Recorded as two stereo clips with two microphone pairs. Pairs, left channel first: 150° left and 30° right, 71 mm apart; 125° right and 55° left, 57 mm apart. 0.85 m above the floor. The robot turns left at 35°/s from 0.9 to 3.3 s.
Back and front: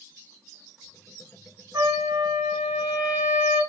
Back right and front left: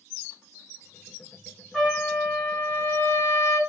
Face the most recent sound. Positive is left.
turn(degrees=-90)